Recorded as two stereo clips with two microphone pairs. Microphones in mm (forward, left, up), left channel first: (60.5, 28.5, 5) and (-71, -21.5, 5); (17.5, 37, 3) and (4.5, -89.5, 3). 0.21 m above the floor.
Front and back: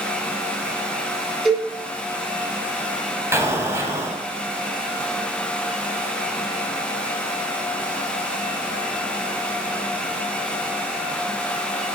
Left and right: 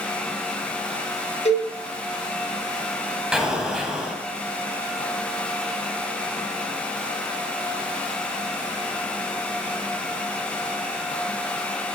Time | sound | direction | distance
1.4 | a cowbell | 110° left | 3 m
3.3 | an explosion | 165° right | 1.2 m